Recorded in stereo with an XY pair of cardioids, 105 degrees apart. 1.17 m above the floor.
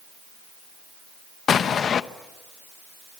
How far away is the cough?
No cough in this recording.